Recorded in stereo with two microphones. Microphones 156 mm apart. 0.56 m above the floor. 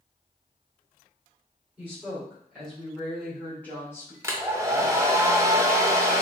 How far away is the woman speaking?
About 2.5 m.